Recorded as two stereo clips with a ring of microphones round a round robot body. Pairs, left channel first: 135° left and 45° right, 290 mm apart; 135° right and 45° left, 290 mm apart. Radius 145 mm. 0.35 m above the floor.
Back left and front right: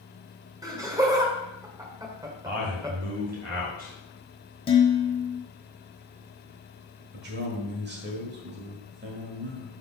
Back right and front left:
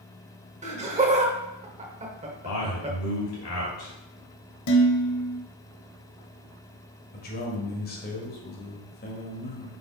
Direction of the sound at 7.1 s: 85° right.